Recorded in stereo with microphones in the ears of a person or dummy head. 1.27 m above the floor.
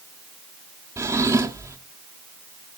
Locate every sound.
1.0 s a drawer: 15° right (ahead or behind), 1.4 m